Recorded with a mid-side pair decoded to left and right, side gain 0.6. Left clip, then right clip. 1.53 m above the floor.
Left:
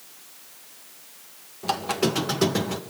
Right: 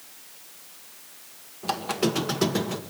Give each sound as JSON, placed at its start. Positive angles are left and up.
{"t": 1.6, "sound": "a squeak", "azimuth_deg": 10, "distance_m": 1.2}